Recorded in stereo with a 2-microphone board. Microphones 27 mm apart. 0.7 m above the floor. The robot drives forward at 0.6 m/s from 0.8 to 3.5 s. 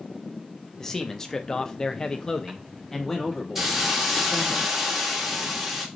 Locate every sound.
0.8 s a man speaking: 15° left (ahead or behind), 1.0 m; by 4.5 s 10° left (ahead or behind), 1.2 m
3.5 s a hiss: 5° right (ahead or behind), 1.4 m